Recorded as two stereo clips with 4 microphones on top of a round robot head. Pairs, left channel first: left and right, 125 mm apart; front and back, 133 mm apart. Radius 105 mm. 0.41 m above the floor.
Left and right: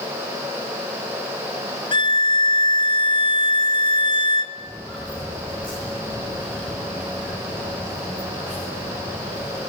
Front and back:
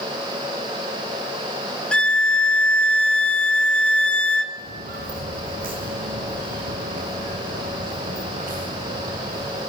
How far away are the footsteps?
About 3.5 m.